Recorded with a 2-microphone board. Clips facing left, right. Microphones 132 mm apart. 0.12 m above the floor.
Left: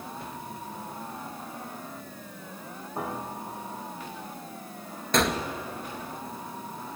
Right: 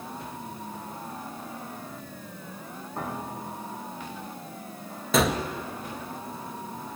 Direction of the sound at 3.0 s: 10° left (ahead or behind).